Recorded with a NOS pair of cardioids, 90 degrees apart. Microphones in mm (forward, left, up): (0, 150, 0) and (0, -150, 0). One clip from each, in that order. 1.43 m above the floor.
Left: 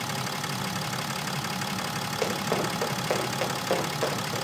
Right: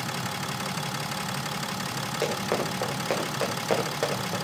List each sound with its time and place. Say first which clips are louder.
2.2 s running footsteps: even; 10° right, 9.5 m; by 4.3 s 20° right, 10 m